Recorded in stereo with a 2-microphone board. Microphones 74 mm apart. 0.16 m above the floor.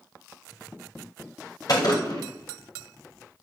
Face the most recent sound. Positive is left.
turn(degrees=55)  # may be behind; listen again after turning